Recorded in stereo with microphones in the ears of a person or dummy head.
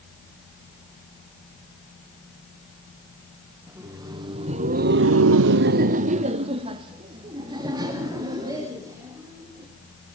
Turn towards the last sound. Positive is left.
turn(degrees=-20)  # may be behind; listen again after turning